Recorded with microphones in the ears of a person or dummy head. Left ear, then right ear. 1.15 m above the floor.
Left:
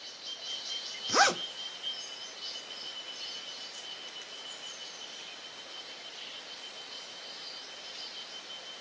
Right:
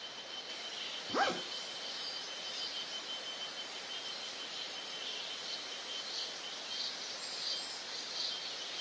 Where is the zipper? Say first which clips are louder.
Left 8 dB; 70° left (ahead or behind), 0.9 m.